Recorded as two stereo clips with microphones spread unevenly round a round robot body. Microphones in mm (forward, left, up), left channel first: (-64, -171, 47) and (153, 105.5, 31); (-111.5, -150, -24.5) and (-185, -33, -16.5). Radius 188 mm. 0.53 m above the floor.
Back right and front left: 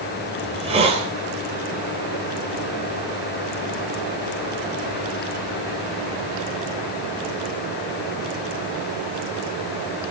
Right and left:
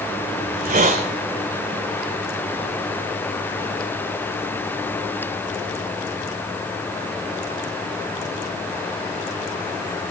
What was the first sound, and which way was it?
A hiss, 125° left.